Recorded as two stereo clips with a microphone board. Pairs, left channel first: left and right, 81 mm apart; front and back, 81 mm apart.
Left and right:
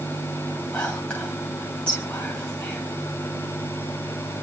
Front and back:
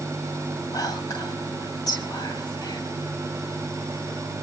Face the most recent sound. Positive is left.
turn(degrees=15)